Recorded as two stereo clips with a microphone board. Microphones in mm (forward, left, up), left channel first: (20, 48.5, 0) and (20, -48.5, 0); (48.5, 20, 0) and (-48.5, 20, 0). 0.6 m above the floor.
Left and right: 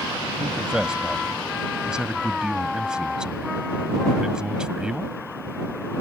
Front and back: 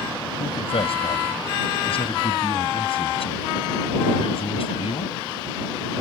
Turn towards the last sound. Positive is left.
turn(degrees=-10)